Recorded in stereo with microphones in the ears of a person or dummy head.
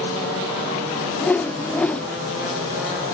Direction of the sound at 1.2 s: 10° left (ahead or behind).